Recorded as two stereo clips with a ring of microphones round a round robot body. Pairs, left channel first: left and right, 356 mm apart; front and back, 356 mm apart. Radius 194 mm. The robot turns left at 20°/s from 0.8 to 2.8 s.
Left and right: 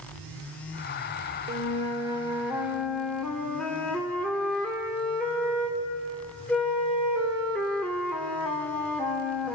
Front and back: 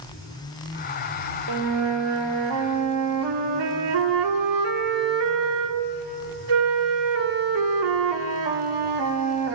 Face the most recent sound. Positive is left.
turn(degrees=175)